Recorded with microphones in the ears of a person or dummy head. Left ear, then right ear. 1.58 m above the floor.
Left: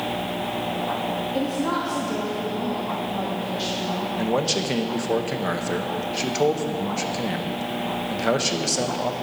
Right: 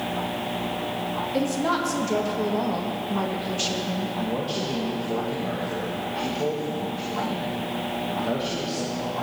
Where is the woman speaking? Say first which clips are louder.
Right 3 dB; 75° right (ahead or behind), 0.8 m.